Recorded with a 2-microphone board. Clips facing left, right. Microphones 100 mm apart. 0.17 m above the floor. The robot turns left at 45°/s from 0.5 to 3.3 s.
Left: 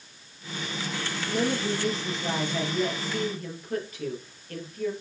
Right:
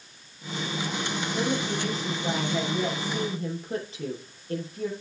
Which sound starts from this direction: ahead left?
A woman speaking, at 1.3 s.